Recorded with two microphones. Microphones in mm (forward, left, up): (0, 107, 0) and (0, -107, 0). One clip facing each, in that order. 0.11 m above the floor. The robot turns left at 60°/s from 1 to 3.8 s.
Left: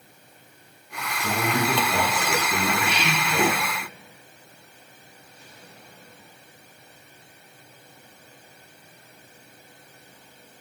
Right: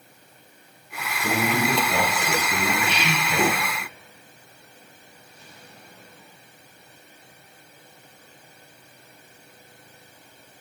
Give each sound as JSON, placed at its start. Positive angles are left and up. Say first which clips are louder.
{"t": 1.2, "sound": "a man speaking", "louder": "right 2 dB", "azimuth_deg": -25, "distance_m": 1.4}